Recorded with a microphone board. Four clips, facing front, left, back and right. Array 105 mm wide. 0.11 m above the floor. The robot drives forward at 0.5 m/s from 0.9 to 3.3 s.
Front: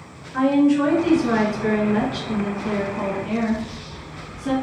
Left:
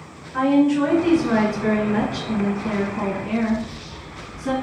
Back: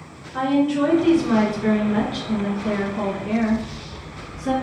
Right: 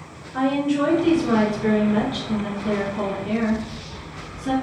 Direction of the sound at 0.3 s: 30° left.